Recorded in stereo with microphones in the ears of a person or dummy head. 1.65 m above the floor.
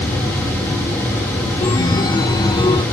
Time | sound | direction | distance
1.6 | a chime | 20° left (ahead or behind) | ?